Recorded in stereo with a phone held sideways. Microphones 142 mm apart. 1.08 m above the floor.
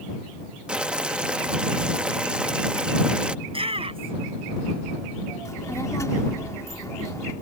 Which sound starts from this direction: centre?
Boiling, at 0.7 s.